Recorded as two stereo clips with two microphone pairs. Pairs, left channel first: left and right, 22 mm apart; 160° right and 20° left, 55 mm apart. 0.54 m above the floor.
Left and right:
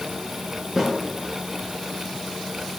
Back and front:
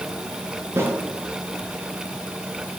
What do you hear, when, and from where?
0.8 s a snare drum: 20° right, 9 m